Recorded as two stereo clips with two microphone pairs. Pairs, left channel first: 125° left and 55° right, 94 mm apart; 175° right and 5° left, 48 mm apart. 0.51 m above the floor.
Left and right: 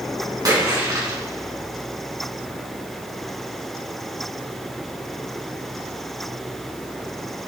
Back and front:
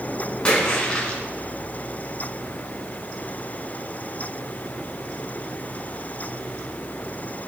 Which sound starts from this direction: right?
A splash, at 0.5 s.